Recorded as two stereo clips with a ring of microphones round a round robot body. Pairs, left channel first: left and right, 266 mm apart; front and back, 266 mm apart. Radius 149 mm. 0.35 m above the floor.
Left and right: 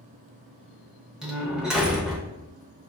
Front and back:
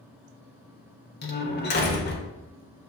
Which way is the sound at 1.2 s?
5° right.